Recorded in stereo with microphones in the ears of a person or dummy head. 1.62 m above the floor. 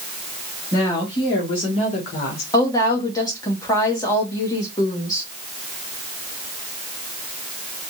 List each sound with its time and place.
0.7 s a woman speaking: 20° left (ahead or behind), 2 m; by 2.4 s 50° left (ahead or behind), 1.7 m
2.5 s a woman speaking: 20° left (ahead or behind), 1.8 m